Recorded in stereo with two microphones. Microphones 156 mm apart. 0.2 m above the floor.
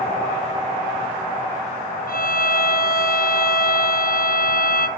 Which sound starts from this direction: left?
A violin, at 2.1 s.